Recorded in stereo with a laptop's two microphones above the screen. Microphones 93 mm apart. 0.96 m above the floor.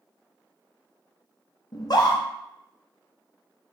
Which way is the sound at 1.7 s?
50° left (ahead or behind).